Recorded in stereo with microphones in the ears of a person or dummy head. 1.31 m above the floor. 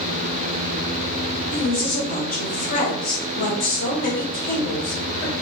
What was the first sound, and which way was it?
A woman speaking, 45° left (ahead or behind).